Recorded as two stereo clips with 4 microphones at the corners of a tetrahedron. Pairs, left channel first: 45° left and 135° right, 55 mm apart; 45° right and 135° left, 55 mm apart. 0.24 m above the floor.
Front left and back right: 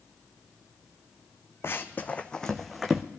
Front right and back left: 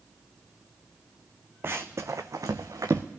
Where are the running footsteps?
85° left, 0.8 m; by 3.0 s 140° left, 1.1 m.